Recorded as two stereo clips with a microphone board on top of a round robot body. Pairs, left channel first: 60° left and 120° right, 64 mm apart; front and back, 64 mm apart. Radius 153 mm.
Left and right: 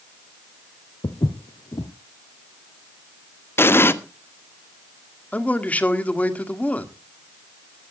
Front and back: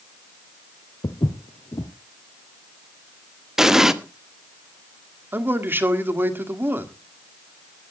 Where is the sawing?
No sawing in this recording.